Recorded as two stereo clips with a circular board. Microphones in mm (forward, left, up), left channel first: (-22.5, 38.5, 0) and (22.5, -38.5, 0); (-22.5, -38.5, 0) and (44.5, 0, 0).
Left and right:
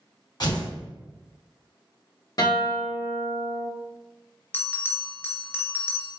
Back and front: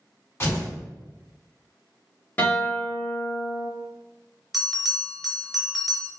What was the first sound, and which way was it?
Tearing paper, 155° left.